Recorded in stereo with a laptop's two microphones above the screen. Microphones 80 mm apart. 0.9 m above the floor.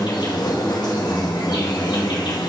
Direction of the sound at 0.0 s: 60° left (ahead or behind).